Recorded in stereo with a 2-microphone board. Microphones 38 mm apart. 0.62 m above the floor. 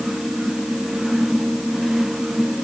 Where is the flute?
I don't hear a flute.